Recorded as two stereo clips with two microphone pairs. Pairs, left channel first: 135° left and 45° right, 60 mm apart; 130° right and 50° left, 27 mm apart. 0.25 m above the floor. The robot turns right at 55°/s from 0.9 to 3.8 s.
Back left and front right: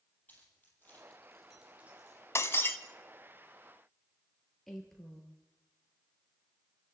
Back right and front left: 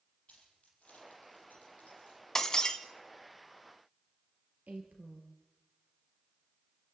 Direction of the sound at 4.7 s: 50° left.